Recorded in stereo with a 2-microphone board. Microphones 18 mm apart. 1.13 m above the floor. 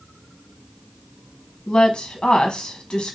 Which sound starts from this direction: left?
A woman speaking, at 1.7 s.